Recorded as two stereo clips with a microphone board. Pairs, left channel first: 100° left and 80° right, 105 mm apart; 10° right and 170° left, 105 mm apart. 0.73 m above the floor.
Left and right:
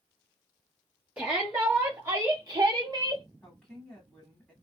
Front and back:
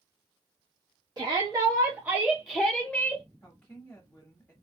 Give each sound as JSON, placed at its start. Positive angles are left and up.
{"t": 1.2, "sound": "a shout", "azimuth_deg": -155, "distance_m": 1.1}
{"t": 3.4, "sound": "a woman speaking", "azimuth_deg": 35, "distance_m": 1.0}